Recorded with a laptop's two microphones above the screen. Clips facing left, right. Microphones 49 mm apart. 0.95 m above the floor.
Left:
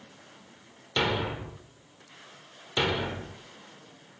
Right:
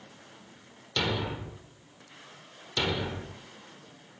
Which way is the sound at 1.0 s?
20° left (ahead or behind).